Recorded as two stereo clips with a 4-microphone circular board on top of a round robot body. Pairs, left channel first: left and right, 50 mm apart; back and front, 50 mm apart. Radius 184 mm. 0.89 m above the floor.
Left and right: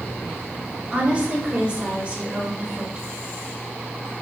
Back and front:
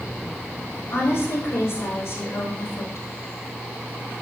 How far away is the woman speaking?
About 5 m.